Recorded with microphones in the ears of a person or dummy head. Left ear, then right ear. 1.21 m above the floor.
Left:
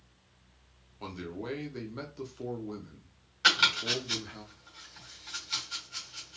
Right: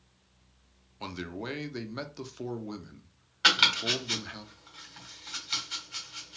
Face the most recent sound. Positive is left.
turn(degrees=-15)  # may be behind; listen again after turning